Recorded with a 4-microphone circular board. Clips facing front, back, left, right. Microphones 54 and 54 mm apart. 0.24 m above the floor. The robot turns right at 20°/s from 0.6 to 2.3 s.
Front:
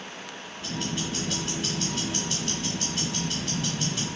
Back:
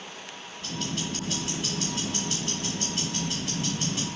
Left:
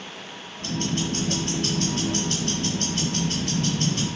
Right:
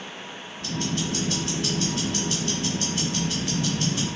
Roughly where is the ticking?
Left.